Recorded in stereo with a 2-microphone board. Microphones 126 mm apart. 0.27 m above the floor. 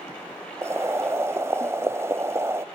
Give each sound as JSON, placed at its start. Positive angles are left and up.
{"t": 0.6, "sound": "boiling", "side_deg": -20, "distance_m": 0.5}